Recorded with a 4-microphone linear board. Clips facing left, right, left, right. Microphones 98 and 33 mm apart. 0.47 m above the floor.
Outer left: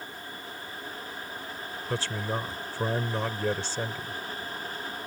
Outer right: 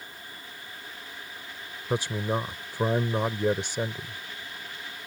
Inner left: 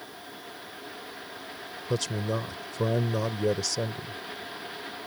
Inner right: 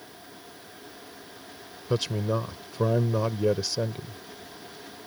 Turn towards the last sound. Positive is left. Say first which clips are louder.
# outer right 4 dB, inner right 3 dB
turn(degrees=-20)  # may be behind; listen again after turning